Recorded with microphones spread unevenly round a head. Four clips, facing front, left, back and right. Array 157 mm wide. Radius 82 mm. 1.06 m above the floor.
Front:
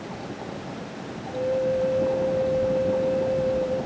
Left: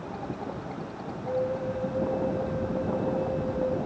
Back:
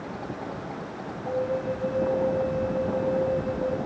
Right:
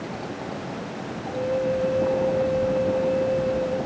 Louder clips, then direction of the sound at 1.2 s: Right 4 dB, front 3 dB; 165° left.